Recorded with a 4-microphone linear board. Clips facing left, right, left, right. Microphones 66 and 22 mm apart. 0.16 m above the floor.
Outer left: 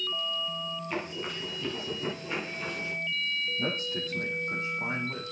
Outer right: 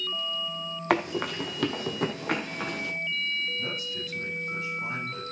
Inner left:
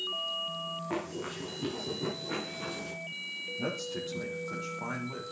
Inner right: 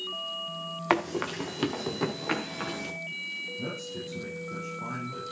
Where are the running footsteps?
80° right, 3 m; by 2.9 s 75° right (ahead or behind), 5 m.